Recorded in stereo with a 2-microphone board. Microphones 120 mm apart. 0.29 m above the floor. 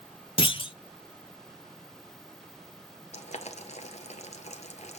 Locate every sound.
0.4 s a clunk: 40° left (ahead or behind), 0.7 m
3.1 s boiling: 60° left (ahead or behind), 1.1 m